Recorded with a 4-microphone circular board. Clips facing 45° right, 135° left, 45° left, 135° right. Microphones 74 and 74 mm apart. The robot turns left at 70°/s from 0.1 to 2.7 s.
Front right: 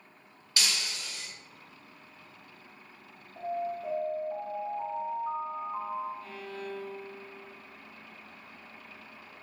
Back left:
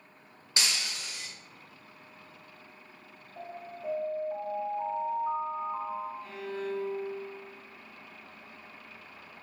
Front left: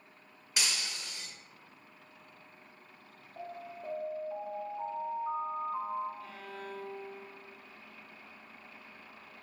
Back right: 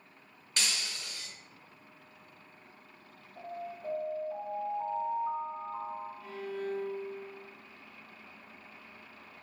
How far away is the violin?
About 0.7 m.